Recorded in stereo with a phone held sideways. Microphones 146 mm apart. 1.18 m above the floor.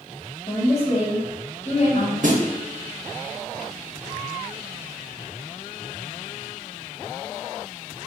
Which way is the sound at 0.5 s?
45° left (ahead or behind).